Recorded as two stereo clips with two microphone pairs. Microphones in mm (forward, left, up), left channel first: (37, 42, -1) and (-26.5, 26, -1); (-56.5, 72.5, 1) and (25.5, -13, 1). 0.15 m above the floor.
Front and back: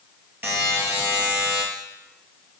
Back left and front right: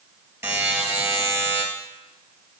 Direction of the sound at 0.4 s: 115° right.